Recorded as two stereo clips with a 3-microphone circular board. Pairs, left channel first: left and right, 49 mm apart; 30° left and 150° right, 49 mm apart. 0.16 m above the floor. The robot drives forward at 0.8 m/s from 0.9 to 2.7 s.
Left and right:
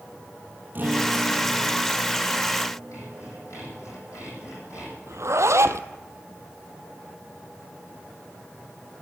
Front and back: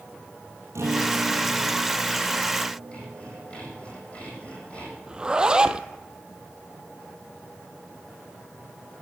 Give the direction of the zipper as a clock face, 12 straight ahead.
3 o'clock.